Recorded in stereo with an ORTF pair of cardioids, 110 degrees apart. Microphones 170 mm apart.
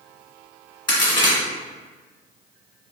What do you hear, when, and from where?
0.9 s a crack: 25° left, 1.6 m